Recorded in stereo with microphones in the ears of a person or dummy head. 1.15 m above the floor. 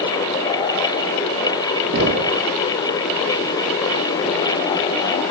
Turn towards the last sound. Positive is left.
turn(degrees=-65)  # may be behind; listen again after turning